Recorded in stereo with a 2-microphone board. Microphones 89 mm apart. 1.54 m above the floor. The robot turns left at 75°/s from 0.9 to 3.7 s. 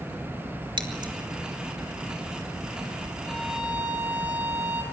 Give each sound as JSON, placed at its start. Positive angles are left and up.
{"t": 0.8, "sound": "scissors", "side_deg": -70, "distance_m": 3.0}
{"t": 3.2, "sound": "a violin", "azimuth_deg": 20, "distance_m": 4.0}